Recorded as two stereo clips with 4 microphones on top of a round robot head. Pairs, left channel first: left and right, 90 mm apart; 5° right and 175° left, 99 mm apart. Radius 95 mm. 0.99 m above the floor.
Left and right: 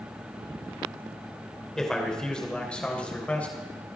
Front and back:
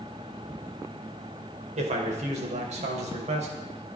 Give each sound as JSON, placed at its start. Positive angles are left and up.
{"t": 1.8, "sound": "a man speaking", "azimuth_deg": 175, "distance_m": 3.5}